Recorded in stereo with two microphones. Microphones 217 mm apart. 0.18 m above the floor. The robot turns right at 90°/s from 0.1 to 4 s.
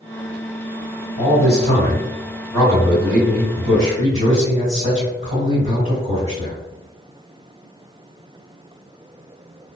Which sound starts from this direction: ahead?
A man speaking, at 1.2 s.